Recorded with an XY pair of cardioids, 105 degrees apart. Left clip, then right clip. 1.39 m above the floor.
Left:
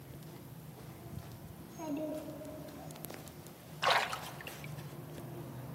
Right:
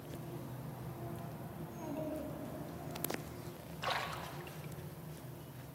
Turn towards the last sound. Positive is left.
turn(degrees=50)